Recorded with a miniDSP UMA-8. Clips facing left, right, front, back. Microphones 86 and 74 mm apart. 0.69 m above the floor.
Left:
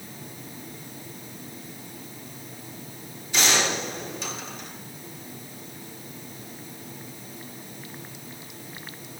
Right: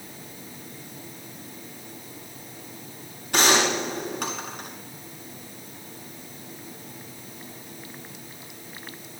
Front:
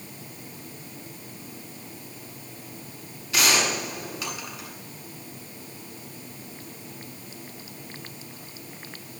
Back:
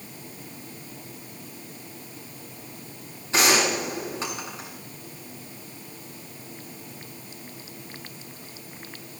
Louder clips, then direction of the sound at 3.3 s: Right 4 dB, back 3 dB; 120° right.